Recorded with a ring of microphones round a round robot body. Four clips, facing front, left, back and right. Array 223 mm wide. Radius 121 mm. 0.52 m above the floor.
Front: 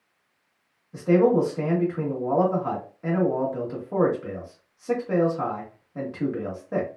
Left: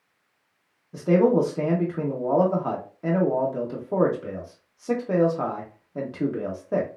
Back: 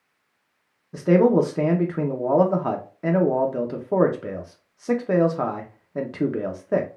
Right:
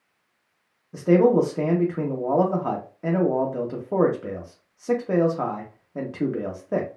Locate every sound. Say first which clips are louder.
0.9 s a man speaking: right 2 dB, back 2 dB; 170° right, 0.7 m